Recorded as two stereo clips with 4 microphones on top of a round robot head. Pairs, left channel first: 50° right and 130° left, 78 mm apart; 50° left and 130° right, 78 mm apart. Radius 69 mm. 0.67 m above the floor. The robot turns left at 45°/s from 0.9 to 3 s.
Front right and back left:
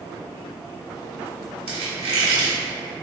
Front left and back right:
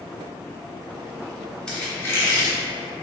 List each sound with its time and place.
1.7 s a squeak: 130° left, 1.0 m; by 2.6 s 90° left, 1.0 m